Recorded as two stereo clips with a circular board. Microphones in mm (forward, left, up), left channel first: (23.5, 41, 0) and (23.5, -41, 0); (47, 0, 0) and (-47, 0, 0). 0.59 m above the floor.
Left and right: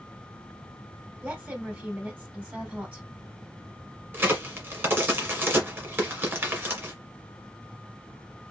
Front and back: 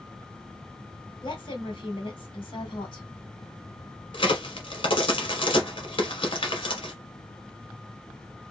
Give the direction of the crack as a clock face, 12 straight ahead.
1 o'clock.